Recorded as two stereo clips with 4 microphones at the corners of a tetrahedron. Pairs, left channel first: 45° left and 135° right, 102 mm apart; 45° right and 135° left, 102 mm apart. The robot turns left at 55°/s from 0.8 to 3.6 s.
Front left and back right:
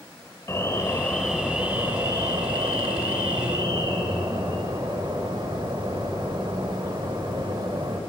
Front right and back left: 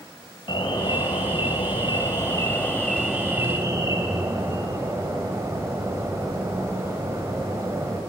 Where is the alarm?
15° right, 2.5 m; by 8.0 s 170° right, 2.5 m.